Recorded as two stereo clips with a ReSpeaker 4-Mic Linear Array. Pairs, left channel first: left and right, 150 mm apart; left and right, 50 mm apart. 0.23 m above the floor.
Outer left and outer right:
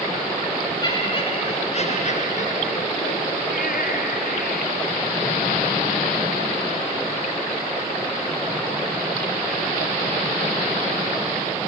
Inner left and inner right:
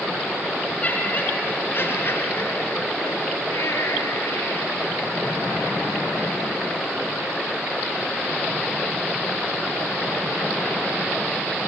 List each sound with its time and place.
0.8 s laughter: 30° left (ahead or behind), 2.5 m; by 4.7 s 75° left (ahead or behind), 4.5 m